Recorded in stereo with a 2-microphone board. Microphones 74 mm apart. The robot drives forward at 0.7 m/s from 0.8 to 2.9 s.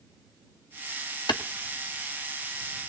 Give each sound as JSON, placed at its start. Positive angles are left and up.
{"t": 1.3, "sound": "a clap", "side_deg": 85, "distance_m": 1.2}